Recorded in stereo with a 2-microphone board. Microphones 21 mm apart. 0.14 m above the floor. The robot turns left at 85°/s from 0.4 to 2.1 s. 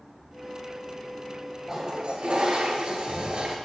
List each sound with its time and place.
1.7 s a toilet flushing: 25° right, 1.7 m; by 3.6 s 60° right, 1.7 m